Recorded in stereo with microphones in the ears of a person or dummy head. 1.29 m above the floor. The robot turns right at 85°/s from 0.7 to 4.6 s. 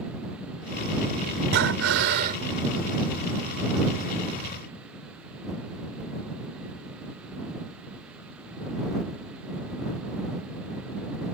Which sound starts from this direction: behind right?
Breathing, at 1.5 s.